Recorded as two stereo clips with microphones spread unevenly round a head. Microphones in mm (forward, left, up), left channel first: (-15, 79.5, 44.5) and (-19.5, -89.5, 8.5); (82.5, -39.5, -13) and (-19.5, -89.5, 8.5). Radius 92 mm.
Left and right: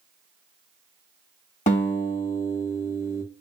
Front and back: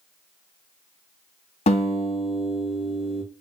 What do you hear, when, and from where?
1.7 s a guitar: 35° left, 1.9 m